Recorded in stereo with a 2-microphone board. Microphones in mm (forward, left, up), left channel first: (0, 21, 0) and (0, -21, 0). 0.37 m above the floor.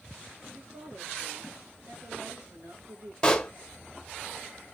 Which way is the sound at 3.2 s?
15° left (ahead or behind).